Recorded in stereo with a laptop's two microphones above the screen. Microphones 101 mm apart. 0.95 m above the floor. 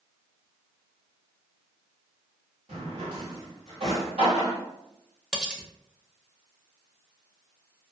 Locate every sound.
2.7 s a drawer: 85° right, 1.5 m
5.3 s cutlery clinking: 10° right (ahead or behind), 0.5 m